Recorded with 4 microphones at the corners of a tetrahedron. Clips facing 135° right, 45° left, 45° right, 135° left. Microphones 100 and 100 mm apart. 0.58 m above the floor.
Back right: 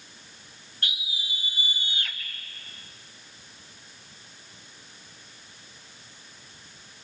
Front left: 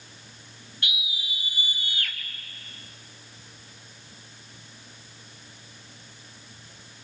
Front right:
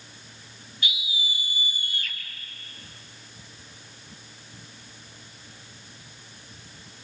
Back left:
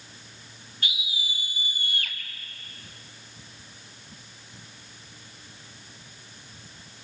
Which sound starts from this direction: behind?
A scream, at 0.8 s.